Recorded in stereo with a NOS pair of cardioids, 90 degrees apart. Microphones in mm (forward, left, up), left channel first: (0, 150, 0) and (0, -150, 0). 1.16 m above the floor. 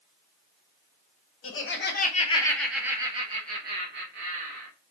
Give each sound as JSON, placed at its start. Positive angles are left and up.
{"t": 1.4, "sound": "laughter", "azimuth_deg": 45, "distance_m": 0.9}